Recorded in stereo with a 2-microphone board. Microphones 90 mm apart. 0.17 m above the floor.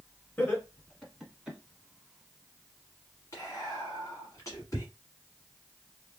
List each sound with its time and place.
0.4 s laughter: 25° left (ahead or behind), 1.4 m; by 1.6 s 10° right (ahead or behind), 1.2 m
3.3 s whispering: 35° left (ahead or behind), 1.3 m